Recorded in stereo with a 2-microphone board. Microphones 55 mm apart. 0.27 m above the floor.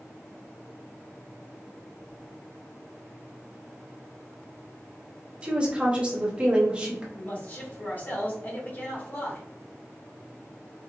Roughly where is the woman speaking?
Right.